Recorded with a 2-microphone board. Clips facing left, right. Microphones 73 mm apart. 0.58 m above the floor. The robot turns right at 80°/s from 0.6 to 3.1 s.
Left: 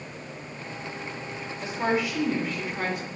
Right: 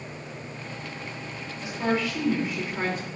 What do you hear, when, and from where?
1.6 s a woman speaking: 125° left, 2 m; by 3.1 s 120° right, 2 m